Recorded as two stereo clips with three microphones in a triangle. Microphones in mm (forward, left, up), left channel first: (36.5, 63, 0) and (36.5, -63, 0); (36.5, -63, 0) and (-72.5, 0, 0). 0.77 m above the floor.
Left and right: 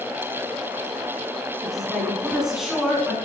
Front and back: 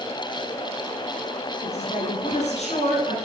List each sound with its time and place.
1.6 s a woman speaking: straight ahead, 7.5 m; by 3.2 s 5° right, 8 m